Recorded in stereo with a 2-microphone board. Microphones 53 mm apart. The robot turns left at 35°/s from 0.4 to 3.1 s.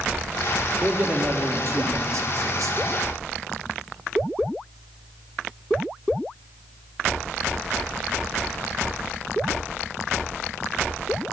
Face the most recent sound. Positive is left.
turn(degrees=-110)